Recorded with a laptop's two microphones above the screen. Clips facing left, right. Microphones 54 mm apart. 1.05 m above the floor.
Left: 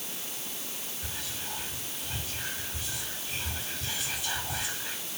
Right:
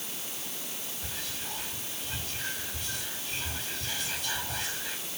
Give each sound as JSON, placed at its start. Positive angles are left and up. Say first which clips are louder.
{"t": 1.0, "sound": "whispering", "louder": "even", "side_deg": 10, "distance_m": 6.0}